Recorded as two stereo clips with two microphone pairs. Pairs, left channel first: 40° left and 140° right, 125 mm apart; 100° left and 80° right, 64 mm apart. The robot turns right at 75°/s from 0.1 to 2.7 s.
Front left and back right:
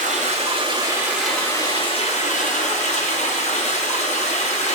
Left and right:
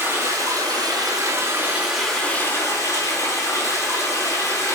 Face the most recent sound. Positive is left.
turn(degrees=60)